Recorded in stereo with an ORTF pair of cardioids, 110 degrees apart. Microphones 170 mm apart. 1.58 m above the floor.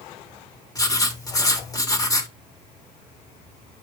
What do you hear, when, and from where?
0.8 s writing: 20° left, 3 m